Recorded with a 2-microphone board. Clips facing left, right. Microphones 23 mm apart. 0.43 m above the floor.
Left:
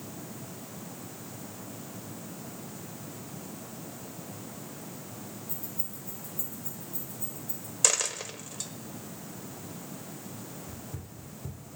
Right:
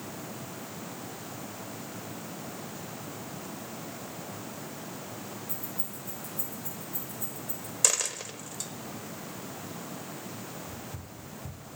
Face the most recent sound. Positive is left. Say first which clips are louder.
# right 2 dB
turn(degrees=80)